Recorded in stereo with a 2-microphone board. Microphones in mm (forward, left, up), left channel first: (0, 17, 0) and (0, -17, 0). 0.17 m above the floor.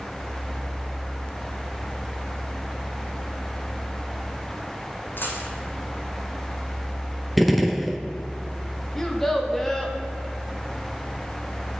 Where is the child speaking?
5° left (ahead or behind), 1.2 m.